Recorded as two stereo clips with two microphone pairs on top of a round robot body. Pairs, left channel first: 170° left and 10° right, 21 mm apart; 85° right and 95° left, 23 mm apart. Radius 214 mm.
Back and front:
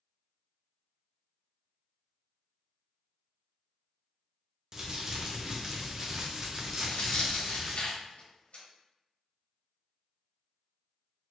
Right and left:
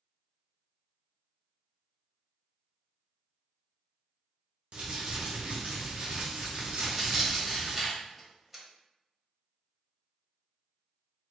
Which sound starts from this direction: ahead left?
Crumpling, at 4.7 s.